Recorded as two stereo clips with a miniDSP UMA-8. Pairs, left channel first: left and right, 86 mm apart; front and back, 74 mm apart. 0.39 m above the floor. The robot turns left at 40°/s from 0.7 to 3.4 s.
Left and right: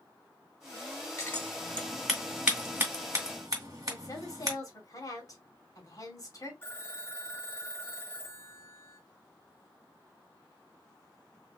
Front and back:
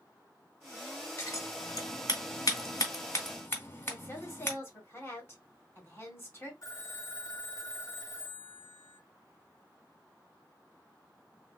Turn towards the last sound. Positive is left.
turn(degrees=30)